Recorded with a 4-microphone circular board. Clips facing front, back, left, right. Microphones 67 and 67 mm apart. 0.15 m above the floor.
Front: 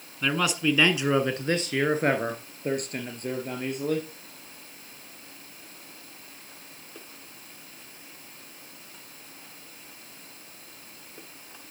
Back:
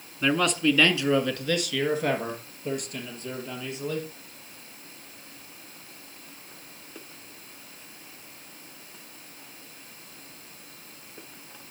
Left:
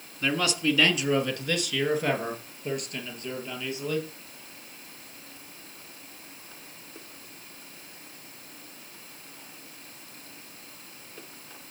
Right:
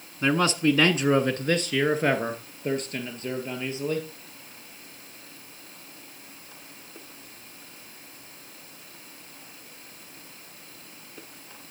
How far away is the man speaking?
About 1.2 m.